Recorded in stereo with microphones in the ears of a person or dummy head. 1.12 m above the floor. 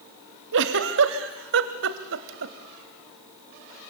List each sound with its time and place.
0.5 s a giggle: 65° right (ahead or behind), 1.7 m